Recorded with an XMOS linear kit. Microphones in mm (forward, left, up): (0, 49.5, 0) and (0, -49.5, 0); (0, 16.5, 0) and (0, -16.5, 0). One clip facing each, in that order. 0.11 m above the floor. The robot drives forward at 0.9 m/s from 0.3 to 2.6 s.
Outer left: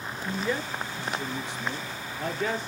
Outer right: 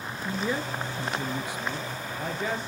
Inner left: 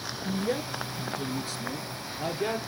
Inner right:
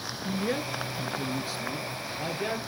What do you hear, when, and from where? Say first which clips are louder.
0.2 s a man speaking: even, even; 15° right (ahead or behind), 1.1 m; by 2.6 s 10° right (ahead or behind), 2 m